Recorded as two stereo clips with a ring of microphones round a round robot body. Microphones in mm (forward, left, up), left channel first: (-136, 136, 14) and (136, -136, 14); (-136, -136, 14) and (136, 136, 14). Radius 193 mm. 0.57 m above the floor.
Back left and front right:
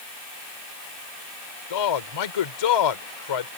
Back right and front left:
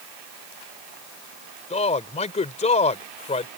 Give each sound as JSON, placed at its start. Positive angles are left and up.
{"t": 1.7, "sound": "a man speaking", "azimuth_deg": 150}